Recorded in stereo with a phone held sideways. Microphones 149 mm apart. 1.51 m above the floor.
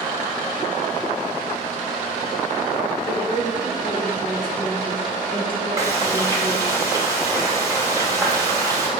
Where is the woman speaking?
35° right (ahead or behind), 4.5 m.